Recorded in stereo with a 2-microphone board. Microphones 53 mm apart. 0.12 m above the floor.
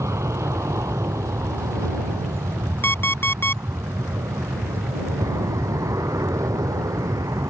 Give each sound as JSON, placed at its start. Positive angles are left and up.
{"t": 0.0, "sound": "an aircraft", "side_deg": -55}
{"t": 2.8, "sound": "an alarm clock", "side_deg": 40}